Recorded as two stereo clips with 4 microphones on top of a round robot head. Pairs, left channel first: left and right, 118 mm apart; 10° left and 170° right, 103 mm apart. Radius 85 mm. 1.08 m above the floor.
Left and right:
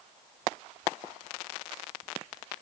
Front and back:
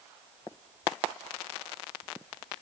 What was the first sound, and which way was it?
Only background noise.